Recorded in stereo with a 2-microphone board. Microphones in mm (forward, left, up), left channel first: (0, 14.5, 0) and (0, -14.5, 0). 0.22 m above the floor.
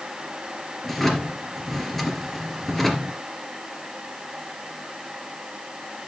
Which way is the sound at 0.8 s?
5° left (ahead or behind).